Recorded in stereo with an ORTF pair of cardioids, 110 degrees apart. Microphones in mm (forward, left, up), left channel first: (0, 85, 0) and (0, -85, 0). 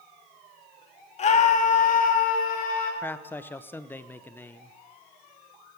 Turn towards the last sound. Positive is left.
turn(degrees=10)